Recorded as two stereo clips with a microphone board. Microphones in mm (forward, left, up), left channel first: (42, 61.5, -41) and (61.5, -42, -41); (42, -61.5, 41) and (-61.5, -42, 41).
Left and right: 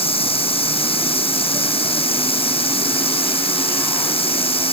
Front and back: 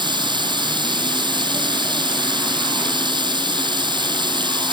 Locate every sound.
0.0 s running water: 125° left